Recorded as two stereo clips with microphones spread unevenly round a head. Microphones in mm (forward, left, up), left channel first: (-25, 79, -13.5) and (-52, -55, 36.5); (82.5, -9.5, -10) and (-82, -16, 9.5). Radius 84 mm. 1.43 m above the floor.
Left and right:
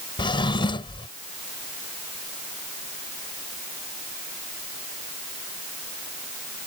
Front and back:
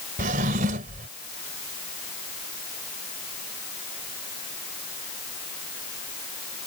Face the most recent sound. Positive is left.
turn(degrees=140)